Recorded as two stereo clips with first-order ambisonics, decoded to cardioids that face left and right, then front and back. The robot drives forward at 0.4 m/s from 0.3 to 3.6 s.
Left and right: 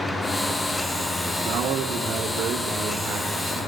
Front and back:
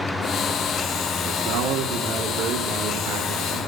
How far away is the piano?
I don't hear a piano.